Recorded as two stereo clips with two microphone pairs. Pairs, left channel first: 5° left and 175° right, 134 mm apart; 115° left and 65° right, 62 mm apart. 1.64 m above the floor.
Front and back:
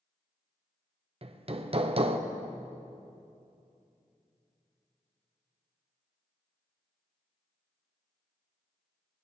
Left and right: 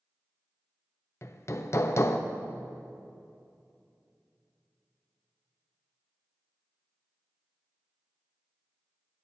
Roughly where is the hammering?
Behind left.